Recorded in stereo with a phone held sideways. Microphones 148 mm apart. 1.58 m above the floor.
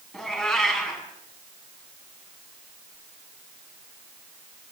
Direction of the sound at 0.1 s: Centre (ahead or behind).